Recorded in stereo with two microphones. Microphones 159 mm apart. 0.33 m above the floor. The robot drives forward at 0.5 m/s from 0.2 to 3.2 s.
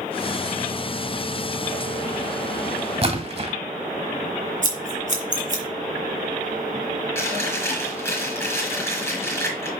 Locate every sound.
3.0 s a splash: 40° right (ahead or behind), 1.2 m
4.6 s scissors: 55° right (ahead or behind), 2.5 m
7.2 s chewing: 15° left (ahead or behind), 5 m